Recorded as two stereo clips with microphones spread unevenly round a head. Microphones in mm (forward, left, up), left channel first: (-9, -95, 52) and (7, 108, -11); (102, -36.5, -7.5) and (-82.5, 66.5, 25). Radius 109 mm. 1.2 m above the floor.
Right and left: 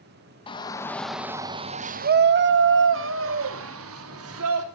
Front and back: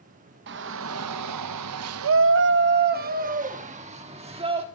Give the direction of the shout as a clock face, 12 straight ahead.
5 o'clock.